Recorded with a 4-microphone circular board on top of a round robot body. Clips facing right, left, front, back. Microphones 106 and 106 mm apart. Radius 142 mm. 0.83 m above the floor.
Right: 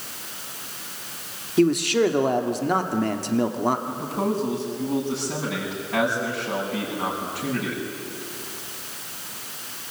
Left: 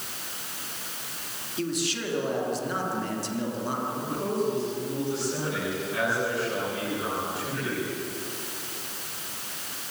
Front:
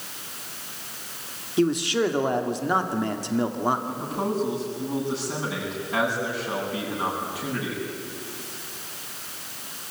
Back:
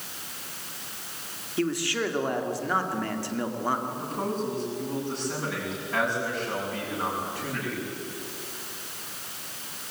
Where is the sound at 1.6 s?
70° right, 2.5 m.